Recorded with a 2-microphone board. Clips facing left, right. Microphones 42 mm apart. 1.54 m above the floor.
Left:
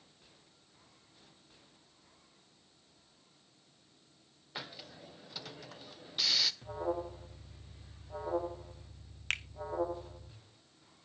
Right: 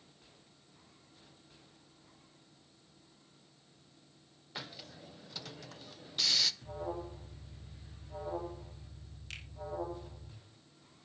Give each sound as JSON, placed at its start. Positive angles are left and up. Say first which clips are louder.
{"t": 4.5, "sound": "a hiss", "louder": "left 1 dB", "side_deg": 5, "distance_m": 0.7}
{"t": 6.6, "sound": "an alarm", "louder": "left 4 dB", "side_deg": 25, "distance_m": 2.5}
{"t": 9.3, "sound": "a finger snap", "louder": "left 12 dB", "side_deg": 70, "distance_m": 1.0}